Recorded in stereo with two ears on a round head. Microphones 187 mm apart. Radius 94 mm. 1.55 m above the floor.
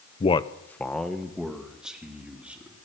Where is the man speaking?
30° left (ahead or behind), 0.6 m; by 2.8 s 5° right (ahead or behind), 4 m.